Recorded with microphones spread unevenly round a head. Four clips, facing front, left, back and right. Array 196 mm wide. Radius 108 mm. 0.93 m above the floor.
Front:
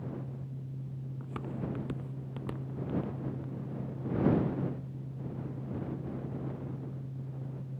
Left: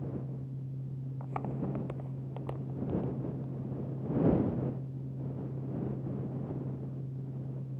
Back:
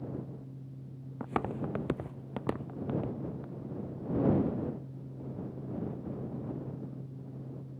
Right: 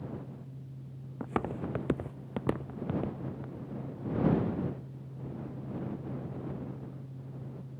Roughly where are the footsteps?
Behind right.